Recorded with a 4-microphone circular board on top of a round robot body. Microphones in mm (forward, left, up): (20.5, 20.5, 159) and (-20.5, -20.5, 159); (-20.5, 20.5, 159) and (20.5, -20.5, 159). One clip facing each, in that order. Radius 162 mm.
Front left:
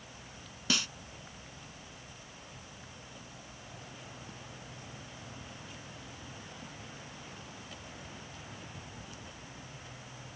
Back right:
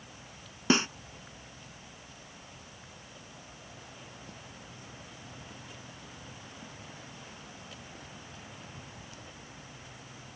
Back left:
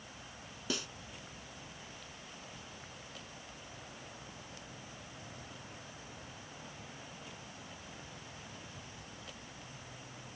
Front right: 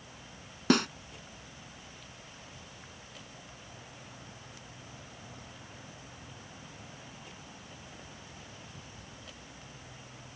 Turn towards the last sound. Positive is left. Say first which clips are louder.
# back right 8 dB, front right 14 dB
turn(degrees=-75)